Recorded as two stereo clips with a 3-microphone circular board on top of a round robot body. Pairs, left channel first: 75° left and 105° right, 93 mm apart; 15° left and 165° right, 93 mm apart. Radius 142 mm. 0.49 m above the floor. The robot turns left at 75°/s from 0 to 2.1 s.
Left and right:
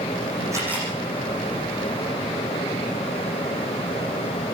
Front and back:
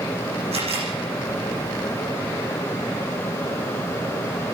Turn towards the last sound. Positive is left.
turn(degrees=75)